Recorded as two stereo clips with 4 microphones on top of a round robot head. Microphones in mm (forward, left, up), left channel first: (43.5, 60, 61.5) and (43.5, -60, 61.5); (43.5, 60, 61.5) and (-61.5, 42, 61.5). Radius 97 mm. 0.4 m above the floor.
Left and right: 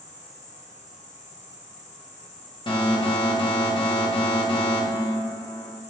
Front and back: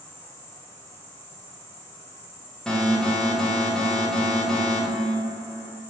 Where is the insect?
75° left, 1.6 m.